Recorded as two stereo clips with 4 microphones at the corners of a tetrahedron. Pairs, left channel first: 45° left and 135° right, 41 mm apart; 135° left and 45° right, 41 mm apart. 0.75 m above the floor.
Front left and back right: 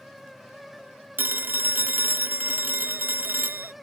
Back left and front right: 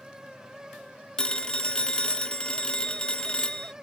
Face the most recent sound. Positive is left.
turn(degrees=-160)